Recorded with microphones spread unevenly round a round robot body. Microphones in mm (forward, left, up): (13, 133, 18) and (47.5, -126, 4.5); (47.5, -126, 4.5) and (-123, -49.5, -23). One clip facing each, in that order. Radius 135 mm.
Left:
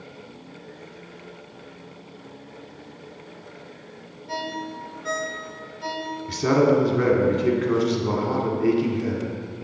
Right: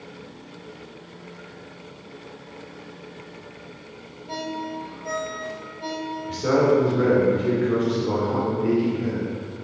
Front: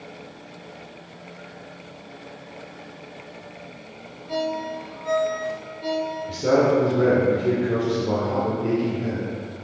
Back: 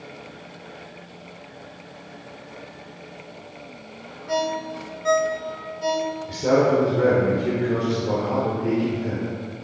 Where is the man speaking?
70° left, 1.3 m.